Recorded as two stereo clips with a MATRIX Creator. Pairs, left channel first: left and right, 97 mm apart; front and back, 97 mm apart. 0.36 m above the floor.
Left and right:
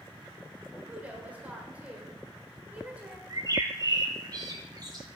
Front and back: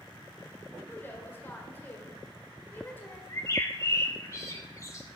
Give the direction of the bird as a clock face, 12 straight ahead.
2 o'clock.